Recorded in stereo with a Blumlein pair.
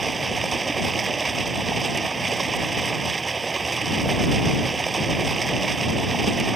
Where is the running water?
15° right.